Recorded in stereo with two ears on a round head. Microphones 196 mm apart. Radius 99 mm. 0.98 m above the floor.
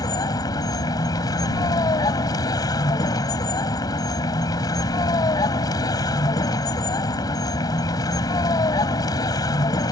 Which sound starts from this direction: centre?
A vehicle, at 0.0 s.